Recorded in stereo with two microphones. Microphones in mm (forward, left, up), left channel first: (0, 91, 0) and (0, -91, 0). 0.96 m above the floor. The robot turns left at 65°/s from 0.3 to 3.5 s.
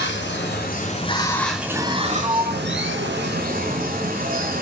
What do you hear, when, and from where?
0.0 s running water: 80° left, 2.5 m; by 4.6 s 130° right, 2.5 m
2.2 s a sliding door: 20° right (ahead or behind), 0.8 m; by 4.0 s 70° right (ahead or behind), 0.8 m